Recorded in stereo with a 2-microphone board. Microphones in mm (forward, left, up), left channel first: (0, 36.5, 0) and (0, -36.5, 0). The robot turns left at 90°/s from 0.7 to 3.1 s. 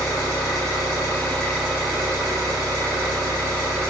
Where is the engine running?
80° left, 1.8 m; by 3.9 s 140° right, 1.8 m.